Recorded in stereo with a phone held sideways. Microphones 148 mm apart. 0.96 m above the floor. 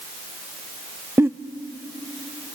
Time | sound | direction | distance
1.2 | a giggle | 15° right (ahead or behind) | 0.5 m